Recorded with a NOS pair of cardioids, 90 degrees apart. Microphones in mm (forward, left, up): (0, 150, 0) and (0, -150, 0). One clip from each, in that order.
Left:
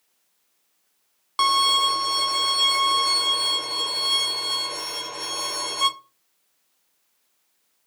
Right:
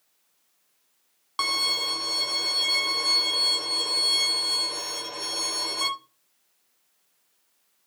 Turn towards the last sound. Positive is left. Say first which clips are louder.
# left 6 dB
turn(degrees=10)